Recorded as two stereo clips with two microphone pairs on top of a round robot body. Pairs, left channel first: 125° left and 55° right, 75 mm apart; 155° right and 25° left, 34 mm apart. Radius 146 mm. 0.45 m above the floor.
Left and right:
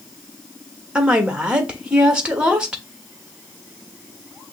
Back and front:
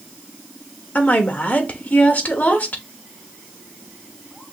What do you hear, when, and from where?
0.9 s a woman speaking: 125° right, 1.4 m